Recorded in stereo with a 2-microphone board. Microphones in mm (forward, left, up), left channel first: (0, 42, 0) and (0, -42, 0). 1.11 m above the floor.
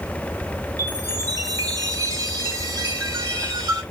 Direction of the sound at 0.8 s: 45° right (ahead or behind).